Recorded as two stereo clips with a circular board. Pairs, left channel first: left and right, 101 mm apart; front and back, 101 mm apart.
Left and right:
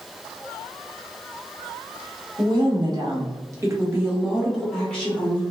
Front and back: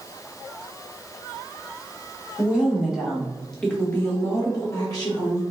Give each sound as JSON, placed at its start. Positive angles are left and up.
{"t": 2.4, "sound": "a woman speaking", "azimuth_deg": -105, "distance_m": 1.2}